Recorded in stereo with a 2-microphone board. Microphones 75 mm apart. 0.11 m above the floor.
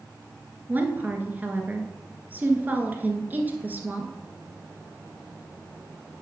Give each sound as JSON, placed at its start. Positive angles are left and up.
{"t": 0.7, "sound": "a woman speaking", "side_deg": -25, "distance_m": 1.3}